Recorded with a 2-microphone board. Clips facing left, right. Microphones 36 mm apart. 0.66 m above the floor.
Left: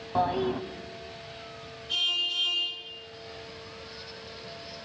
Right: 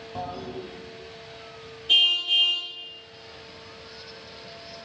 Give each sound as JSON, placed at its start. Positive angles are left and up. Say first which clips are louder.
{"t": 0.1, "sound": "a toilet flushing", "louder": "left 8 dB", "side_deg": 50, "distance_m": 1.0}
{"t": 1.9, "sound": "a car horn", "louder": "right 8 dB", "side_deg": -70, "distance_m": 7.0}